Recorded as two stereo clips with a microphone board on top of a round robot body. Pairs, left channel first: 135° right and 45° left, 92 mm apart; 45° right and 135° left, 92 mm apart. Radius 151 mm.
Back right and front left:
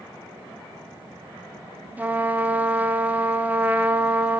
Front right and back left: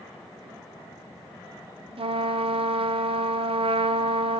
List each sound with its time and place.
2.0 s a trumpet: 120° left, 0.5 m